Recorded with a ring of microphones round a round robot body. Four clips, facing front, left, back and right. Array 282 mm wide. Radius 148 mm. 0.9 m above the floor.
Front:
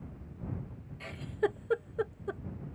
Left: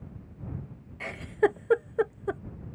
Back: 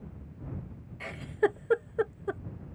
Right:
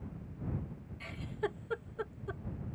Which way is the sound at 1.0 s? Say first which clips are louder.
Left 13 dB, back 4 dB; 115° left.